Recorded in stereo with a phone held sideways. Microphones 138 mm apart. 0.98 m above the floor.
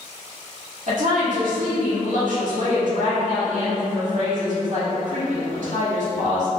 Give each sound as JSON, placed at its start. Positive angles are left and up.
{"t": 0.9, "sound": "a woman speaking", "side_deg": -65, "distance_m": 1.3}